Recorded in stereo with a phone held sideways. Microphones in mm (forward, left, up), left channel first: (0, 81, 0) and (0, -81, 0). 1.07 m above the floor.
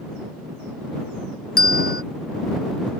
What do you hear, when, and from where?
1.6 s a bell: 65° left (ahead or behind)